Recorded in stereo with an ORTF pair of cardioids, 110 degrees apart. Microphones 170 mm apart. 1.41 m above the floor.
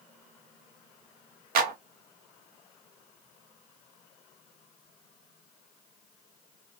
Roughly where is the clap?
Ahead right.